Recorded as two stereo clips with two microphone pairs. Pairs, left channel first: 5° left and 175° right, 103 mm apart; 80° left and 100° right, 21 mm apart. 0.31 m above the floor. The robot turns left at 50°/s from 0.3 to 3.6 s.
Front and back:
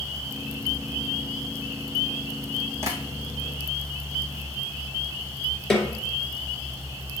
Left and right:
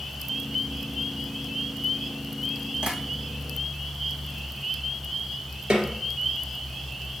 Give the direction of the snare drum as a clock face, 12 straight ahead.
3 o'clock.